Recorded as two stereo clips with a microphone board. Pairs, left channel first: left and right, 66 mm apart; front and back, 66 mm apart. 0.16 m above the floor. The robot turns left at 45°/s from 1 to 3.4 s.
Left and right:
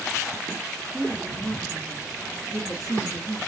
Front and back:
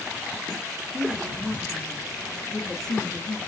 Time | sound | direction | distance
0.9 | a woman speaking | 165° left | 1.4 m